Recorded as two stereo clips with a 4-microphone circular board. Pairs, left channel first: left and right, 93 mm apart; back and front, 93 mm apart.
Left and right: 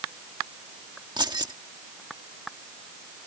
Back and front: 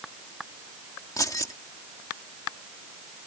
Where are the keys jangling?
130° right.